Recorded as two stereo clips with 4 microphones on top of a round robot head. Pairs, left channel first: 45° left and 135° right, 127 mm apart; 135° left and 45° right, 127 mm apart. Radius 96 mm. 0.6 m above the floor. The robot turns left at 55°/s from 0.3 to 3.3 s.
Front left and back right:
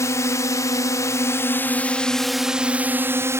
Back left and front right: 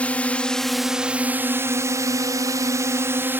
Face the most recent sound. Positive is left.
turn(degrees=-95)